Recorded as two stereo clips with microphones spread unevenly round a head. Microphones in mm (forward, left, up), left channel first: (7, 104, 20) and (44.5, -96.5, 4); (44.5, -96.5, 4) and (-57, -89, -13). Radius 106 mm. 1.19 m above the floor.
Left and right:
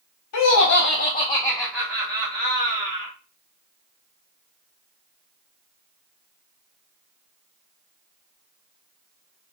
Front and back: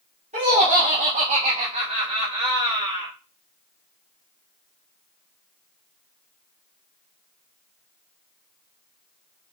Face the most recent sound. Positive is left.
turn(degrees=-140)